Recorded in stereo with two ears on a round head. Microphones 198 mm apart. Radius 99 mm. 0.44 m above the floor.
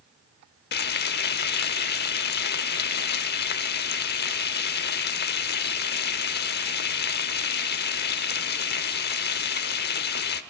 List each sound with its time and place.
0.7 s frying: 50° left (ahead or behind), 0.9 m